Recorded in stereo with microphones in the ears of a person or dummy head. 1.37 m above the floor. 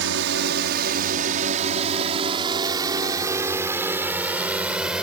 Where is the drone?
65° right (ahead or behind); by 5.0 s centre (ahead or behind).